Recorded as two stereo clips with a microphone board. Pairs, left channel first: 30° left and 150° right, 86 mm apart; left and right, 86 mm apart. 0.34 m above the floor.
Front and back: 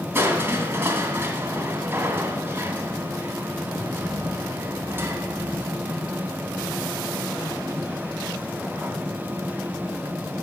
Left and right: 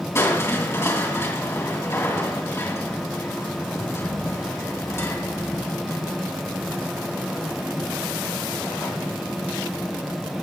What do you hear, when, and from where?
0.1 s crushing: 145° left, 2.5 m